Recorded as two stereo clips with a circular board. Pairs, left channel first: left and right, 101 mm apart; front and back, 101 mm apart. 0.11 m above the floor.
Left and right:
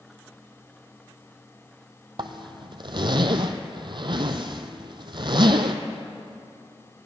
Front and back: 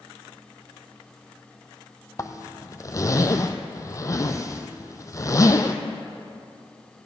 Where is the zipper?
55° right, 0.8 m.